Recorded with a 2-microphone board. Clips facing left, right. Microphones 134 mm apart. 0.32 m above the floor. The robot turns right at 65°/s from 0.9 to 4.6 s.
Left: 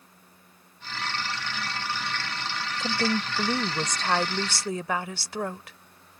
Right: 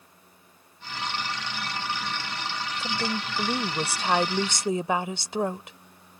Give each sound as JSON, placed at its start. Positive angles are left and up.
{"t": 2.8, "sound": "a woman speaking", "side_deg": 15}